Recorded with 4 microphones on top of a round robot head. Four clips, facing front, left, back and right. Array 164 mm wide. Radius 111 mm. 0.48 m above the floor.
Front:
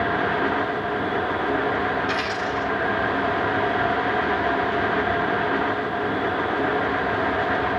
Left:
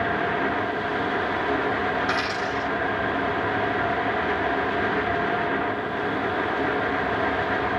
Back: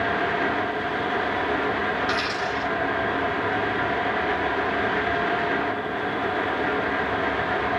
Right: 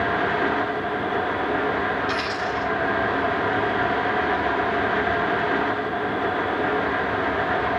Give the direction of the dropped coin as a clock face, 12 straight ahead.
8 o'clock.